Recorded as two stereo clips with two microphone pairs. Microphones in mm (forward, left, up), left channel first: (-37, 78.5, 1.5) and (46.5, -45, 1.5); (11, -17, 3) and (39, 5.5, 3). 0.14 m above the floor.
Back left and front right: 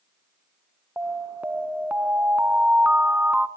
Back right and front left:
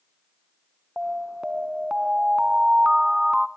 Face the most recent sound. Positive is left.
turn(degrees=5)